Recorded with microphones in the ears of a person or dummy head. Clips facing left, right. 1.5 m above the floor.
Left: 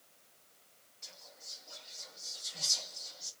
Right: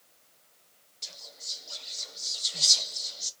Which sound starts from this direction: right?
Whispering, at 1.0 s.